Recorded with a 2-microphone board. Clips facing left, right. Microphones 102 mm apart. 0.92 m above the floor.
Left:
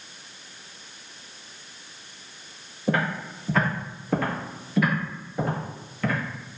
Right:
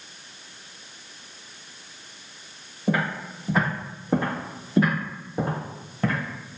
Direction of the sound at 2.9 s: 10° right (ahead or behind).